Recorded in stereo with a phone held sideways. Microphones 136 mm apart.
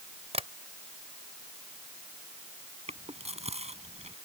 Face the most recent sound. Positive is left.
turn(degrees=-50)  # may be behind; listen again after turning